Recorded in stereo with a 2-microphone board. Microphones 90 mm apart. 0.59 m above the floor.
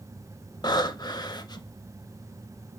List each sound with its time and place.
0.6 s breathing: 50° left (ahead or behind), 0.5 m